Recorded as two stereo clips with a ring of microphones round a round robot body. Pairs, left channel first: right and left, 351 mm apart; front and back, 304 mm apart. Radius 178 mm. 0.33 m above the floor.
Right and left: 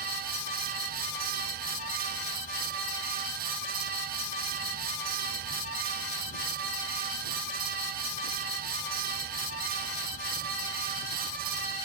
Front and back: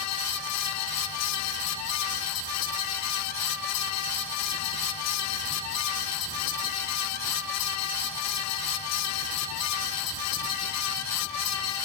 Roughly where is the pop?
No pop in this recording.